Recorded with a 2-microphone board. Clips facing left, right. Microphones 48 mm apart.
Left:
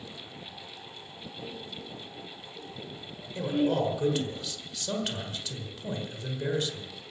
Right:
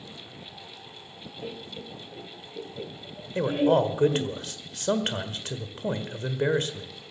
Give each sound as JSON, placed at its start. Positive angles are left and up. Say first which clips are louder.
{"t": 1.4, "sound": "laughter", "louder": "right 4 dB", "side_deg": -30, "distance_m": 1.9}
{"t": 3.4, "sound": "a man speaking", "louder": "right 5 dB", "side_deg": -45, "distance_m": 1.3}